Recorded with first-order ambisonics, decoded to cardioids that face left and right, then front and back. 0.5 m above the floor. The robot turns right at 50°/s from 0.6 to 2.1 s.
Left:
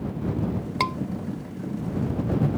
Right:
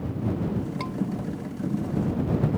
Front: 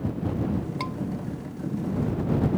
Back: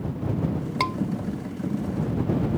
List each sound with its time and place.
0.8 s a scream: 125° left; by 1.0 s 135° left